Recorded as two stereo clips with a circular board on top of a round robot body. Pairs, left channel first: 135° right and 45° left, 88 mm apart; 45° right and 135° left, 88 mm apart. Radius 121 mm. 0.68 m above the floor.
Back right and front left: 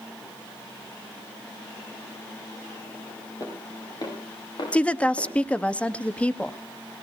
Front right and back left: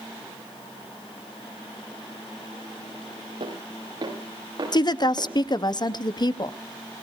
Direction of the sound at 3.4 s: 175° left.